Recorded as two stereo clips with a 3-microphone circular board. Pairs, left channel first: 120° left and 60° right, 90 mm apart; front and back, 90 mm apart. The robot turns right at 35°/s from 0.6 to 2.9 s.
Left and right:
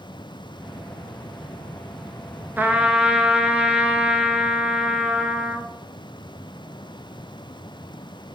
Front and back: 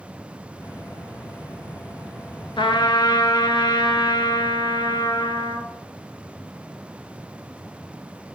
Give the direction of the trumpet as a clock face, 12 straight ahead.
12 o'clock.